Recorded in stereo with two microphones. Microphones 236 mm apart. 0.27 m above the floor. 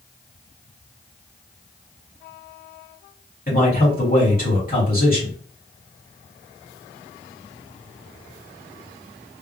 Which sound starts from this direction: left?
A man speaking, at 3.5 s.